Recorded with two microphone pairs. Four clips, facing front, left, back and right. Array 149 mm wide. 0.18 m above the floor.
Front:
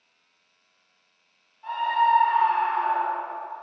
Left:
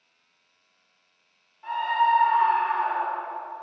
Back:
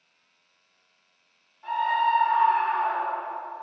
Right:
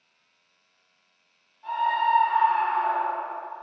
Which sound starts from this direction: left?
A scream, at 1.6 s.